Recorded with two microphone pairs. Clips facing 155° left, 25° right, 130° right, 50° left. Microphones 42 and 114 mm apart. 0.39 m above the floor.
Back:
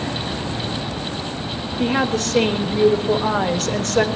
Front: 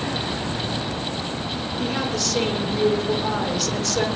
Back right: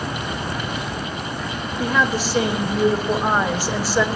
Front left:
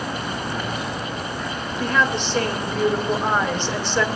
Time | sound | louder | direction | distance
1.8 | a woman speaking | back 7 dB, back right 1 dB | 150° left | 1.7 m